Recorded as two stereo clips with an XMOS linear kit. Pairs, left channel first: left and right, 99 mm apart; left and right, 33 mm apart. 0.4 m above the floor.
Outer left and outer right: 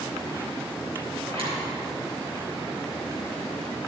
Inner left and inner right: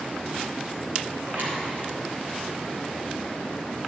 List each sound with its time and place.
1.2 s a zipper: 65° right (ahead or behind), 3.5 m